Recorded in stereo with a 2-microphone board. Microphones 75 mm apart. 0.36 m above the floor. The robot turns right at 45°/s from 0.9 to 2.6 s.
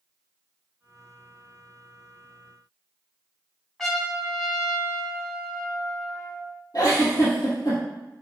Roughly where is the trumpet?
Centre.